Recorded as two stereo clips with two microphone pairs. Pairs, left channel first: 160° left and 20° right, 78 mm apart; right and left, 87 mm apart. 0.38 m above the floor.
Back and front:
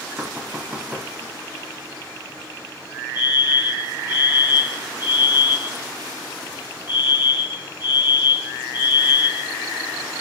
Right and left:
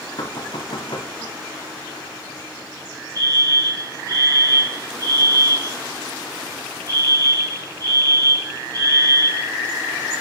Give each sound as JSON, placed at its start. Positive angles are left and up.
{"t": 0.2, "sound": "knocking", "azimuth_deg": -90, "distance_m": 1.9}
{"t": 3.1, "sound": "a fire alarm", "azimuth_deg": 45, "distance_m": 6.5}